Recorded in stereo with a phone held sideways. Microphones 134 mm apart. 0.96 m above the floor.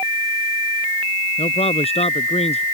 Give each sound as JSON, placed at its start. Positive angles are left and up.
{"t": 1.4, "sound": "a man speaking", "side_deg": 50}